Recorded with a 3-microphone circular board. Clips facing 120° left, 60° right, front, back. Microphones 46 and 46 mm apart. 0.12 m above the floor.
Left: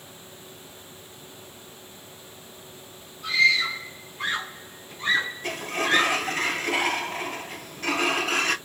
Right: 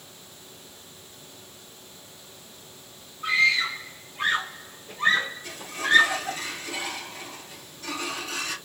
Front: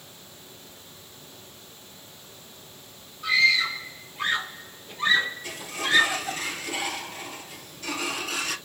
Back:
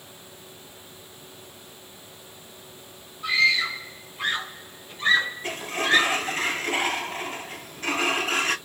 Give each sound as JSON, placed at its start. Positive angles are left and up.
{"t": 3.2, "sound": "a scream", "azimuth_deg": -85, "distance_m": 2.0}
{"t": 5.4, "sound": "a sliding door", "azimuth_deg": 140, "distance_m": 0.6}